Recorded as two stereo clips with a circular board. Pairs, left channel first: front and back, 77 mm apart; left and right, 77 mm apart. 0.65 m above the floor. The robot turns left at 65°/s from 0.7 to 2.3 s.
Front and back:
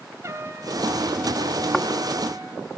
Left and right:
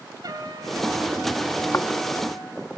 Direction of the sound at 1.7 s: 80° left.